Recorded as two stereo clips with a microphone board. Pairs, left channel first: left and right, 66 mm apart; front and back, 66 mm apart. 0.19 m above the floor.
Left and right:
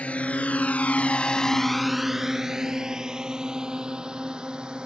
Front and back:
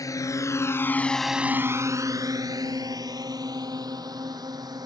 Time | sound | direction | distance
0.0 | a drone | 25° left | ?